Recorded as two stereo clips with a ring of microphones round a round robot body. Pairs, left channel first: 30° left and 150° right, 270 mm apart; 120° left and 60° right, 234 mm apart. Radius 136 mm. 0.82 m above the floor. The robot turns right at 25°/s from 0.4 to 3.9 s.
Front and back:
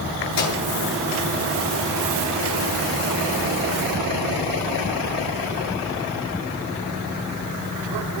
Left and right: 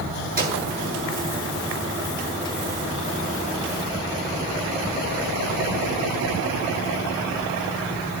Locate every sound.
0.4 s a microwave: 5° right, 8.5 m; by 0.6 s straight ahead, 8.5 m